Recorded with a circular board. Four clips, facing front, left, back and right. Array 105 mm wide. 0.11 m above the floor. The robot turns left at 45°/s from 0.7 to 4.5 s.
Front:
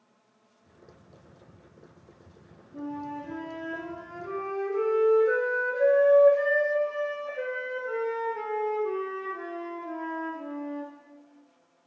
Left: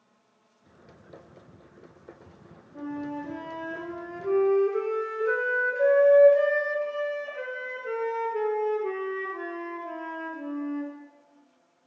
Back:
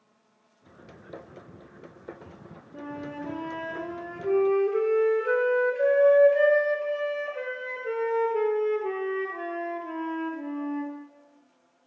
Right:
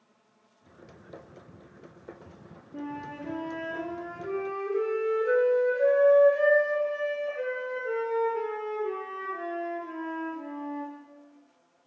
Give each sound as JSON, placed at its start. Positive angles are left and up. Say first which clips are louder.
{"t": 2.7, "sound": "a flute", "louder": "left 3 dB, front 1 dB", "azimuth_deg": -115, "distance_m": 1.3}